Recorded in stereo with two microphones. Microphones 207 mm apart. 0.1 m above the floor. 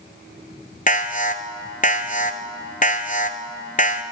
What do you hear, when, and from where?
0.9 s an alarm: 40° left (ahead or behind), 1.3 m